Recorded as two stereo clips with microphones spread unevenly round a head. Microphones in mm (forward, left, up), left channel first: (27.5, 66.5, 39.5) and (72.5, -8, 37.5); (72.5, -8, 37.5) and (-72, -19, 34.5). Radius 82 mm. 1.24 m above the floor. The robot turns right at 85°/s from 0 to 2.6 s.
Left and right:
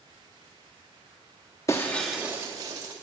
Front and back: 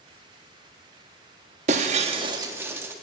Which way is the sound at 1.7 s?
175° left.